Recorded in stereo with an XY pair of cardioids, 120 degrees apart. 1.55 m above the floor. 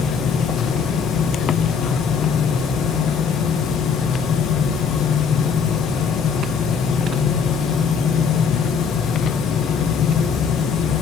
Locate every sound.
0.0 s a fan: 60° left, 1.1 m